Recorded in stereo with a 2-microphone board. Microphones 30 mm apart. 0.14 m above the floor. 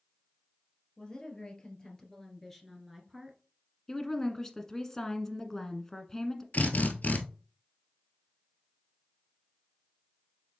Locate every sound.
1.0 s a woman speaking: 25° left (ahead or behind), 2.5 m; by 3.4 s 20° right (ahead or behind), 1.5 m
3.9 s a woman speaking: 10° left (ahead or behind), 1.2 m
6.5 s a drill: 65° left (ahead or behind), 1.3 m